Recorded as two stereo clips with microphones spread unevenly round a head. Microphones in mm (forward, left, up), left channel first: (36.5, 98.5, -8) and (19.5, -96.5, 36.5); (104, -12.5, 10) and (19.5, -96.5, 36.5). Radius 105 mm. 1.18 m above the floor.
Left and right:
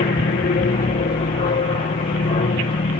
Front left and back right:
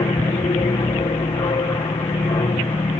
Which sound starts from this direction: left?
An aircraft, at 0.0 s.